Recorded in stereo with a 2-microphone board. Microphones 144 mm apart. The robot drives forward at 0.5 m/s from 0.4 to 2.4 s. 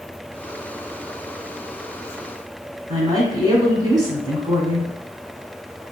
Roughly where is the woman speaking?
Right.